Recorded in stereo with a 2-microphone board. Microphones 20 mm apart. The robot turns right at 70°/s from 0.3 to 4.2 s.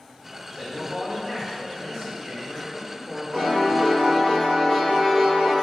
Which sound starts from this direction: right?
A piano, at 3.3 s.